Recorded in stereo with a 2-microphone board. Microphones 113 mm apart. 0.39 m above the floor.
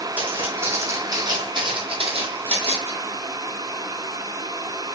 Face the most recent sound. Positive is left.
turn(degrees=-70)  # may be behind; listen again after turning